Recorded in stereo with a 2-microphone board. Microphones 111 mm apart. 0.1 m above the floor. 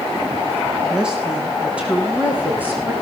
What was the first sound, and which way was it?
A woman speaking, 10° right (ahead or behind).